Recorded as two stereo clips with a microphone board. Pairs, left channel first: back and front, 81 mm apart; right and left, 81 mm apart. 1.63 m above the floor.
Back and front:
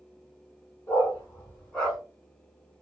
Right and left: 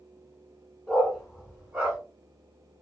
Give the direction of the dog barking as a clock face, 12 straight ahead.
6 o'clock.